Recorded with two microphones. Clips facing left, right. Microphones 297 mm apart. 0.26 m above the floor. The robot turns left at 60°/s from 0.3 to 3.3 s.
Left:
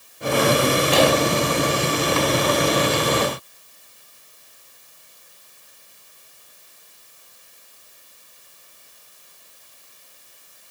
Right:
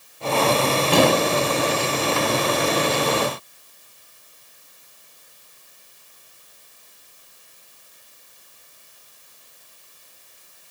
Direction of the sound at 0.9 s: 45° right (ahead or behind).